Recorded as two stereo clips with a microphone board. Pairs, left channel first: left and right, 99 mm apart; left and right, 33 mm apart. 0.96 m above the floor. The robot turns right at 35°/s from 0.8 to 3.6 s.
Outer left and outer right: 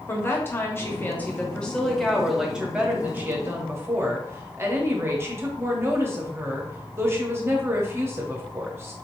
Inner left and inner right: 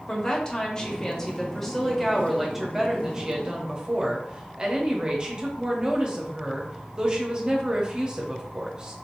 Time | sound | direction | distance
0.1 | a woman speaking | 135° left | 0.9 m